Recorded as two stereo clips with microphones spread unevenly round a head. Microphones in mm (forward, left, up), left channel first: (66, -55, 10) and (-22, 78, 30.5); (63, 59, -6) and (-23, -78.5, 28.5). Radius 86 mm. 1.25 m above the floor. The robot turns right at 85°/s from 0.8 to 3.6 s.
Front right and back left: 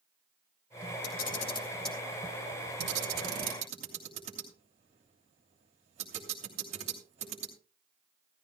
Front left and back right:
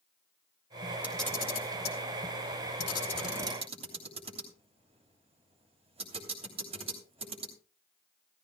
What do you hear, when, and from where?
1.0 s a camera shutter: 40° right, 3 m; by 7.5 s straight behind, 3 m